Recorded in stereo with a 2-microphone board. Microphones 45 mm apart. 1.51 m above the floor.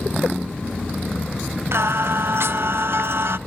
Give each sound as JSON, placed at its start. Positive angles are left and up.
{"t": 1.7, "sound": "singing", "side_deg": -65, "distance_m": 0.7}